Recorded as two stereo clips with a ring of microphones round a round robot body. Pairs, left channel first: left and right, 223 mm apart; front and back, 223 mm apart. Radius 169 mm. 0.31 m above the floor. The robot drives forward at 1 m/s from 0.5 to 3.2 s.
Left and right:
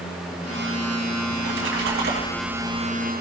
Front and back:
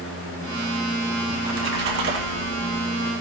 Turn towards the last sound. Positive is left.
turn(degrees=-150)